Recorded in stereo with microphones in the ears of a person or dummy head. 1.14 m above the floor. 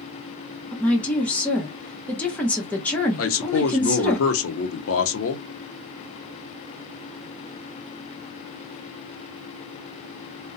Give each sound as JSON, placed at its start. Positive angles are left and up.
{"t": 0.7, "sound": "a woman speaking", "side_deg": 0, "distance_m": 0.6}
{"t": 3.2, "sound": "a man speaking", "side_deg": 65, "distance_m": 0.6}